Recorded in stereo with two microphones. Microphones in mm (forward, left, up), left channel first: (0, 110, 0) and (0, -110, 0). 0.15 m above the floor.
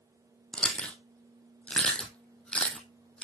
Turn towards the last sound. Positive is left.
turn(degrees=5)  # may be behind; listen again after turning